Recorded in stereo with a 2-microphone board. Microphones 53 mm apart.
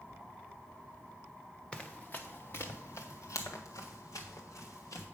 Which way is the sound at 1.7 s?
20° left (ahead or behind).